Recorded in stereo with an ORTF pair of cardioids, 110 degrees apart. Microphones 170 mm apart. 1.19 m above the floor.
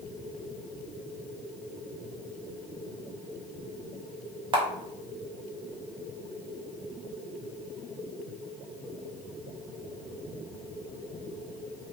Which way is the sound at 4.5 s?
30° right.